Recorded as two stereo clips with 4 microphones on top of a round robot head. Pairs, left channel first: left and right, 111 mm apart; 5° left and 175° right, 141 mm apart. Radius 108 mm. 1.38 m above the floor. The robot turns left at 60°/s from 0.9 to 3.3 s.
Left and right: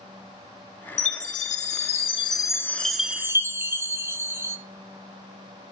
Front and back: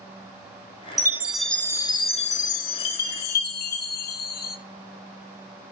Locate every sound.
1.0 s a chime: 120° left, 1.9 m; by 4.6 s 20° right, 1.9 m